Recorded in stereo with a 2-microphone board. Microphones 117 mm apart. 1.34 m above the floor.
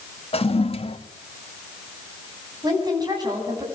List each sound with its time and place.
0.3 s a toilet flushing: 55° left (ahead or behind), 1.8 m
2.6 s a woman speaking: 35° right (ahead or behind), 9.5 m